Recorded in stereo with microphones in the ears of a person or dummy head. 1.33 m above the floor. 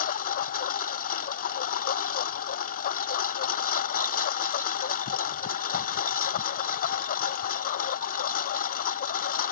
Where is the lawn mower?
45° left (ahead or behind).